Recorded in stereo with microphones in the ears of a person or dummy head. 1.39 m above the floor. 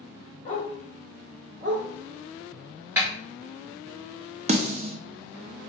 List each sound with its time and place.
0.5 s a dog barking: 35° left (ahead or behind), 1.9 m; by 1.9 s 40° right (ahead or behind), 1.3 m
3.0 s a snare drum: 10° right (ahead or behind), 1.2 m
4.5 s a snare drum: 35° right (ahead or behind), 0.5 m